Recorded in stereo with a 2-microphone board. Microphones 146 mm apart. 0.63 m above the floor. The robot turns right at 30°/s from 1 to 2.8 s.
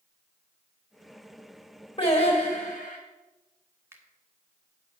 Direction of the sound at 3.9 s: 15° right (ahead or behind).